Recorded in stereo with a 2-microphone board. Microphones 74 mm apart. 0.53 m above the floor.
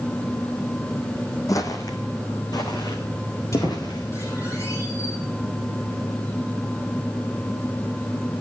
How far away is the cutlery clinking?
I don't hear cutlery clinking.